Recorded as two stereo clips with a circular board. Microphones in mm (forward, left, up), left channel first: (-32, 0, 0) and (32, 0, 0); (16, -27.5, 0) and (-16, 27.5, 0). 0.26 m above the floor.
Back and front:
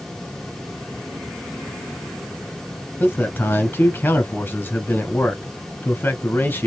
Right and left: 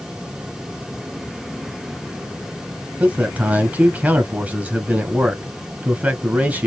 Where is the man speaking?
165° left, 1.4 m.